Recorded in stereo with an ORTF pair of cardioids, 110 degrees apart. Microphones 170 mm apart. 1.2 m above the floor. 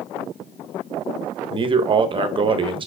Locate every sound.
1.5 s a man speaking: 30° right, 0.8 m